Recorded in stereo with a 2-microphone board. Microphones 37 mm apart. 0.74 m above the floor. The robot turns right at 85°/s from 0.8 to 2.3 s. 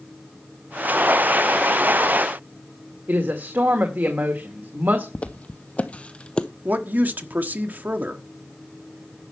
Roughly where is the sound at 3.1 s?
Right.